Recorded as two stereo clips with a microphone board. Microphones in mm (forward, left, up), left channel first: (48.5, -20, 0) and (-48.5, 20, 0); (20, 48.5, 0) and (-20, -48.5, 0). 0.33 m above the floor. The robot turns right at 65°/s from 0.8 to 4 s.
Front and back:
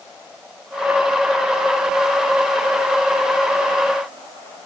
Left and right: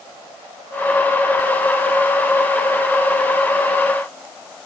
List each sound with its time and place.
Only background noise.